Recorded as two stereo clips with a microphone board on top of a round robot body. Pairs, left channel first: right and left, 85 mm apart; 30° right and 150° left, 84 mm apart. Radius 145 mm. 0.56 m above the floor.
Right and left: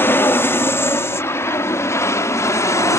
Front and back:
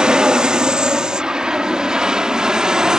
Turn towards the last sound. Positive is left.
turn(degrees=-130)